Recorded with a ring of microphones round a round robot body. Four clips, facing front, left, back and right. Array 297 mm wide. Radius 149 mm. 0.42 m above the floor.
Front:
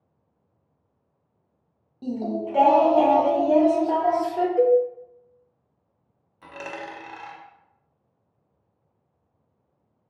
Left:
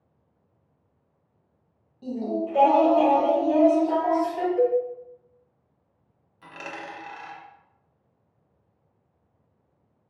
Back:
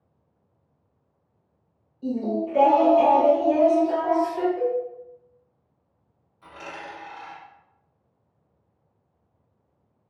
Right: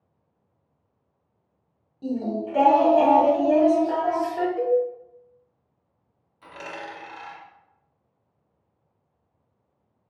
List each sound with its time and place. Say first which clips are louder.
2.0 s singing: right 1 dB, back 2 dB; 20° right, 0.8 m
4.6 s a cowbell: left 1 dB, front 7 dB; 5° left, 0.6 m
6.4 s a dropped coin: right 1 dB, front 3 dB; 10° left, 0.8 m